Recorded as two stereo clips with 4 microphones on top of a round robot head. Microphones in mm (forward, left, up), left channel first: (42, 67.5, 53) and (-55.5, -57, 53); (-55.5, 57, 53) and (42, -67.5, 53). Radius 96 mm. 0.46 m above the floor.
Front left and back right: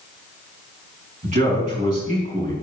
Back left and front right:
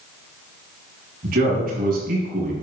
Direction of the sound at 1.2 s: 85° right.